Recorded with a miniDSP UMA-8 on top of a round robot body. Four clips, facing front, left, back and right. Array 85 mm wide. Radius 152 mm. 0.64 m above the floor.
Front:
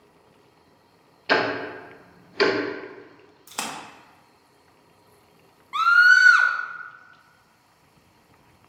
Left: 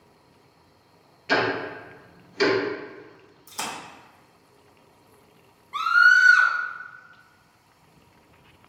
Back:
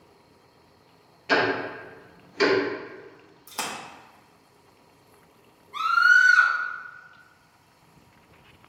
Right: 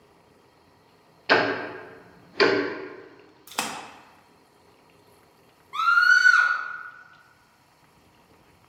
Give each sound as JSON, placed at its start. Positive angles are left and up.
{"t": 1.3, "sound": "ticking", "azimuth_deg": -55, "distance_m": 0.8}
{"t": 3.5, "sound": "a splash", "azimuth_deg": -75, "distance_m": 0.9}
{"t": 5.7, "sound": "a scream", "azimuth_deg": 0, "distance_m": 1.0}